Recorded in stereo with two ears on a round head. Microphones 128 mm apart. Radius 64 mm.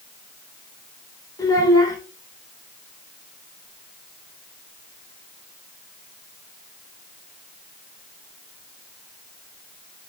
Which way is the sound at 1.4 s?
25° left (ahead or behind).